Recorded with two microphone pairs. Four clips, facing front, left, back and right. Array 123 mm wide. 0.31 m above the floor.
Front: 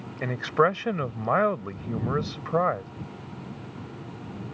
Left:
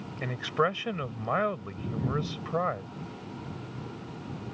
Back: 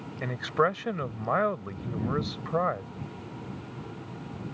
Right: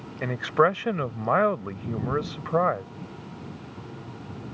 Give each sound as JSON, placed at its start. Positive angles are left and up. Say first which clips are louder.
{"t": 0.2, "sound": "a man speaking", "louder": "right 6 dB, front 3 dB", "azimuth_deg": -65}